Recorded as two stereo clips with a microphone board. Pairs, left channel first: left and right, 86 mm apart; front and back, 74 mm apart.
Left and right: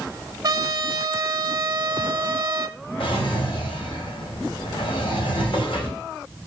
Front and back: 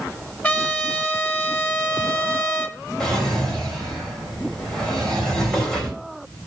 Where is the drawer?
85° left, 3 m.